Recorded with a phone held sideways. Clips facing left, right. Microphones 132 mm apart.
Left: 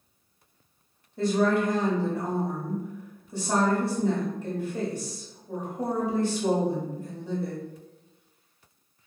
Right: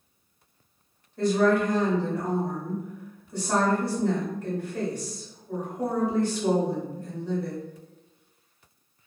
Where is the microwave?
I don't hear a microwave.